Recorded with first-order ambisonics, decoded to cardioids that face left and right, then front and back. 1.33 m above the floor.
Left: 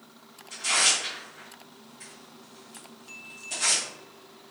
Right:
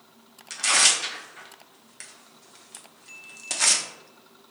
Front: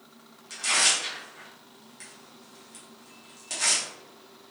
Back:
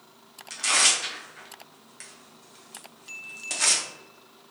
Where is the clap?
No clap in this recording.